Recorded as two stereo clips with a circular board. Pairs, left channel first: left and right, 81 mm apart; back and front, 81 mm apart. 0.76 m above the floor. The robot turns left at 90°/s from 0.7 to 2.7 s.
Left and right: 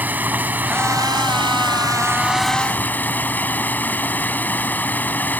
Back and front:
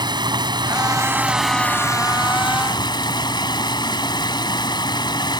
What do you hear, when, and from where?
0.0 s running water: 25° right; by 5.4 s 155° left